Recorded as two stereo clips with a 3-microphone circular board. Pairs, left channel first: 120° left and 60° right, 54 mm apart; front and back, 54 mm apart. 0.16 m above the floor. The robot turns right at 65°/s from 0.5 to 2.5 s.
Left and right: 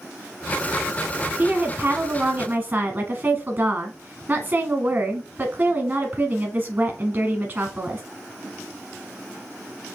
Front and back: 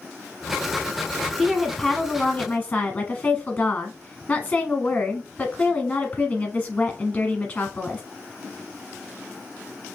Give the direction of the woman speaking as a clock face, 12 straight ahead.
4 o'clock.